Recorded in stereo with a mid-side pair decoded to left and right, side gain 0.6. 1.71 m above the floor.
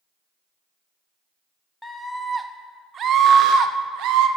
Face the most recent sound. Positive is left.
turn(degrees=-70)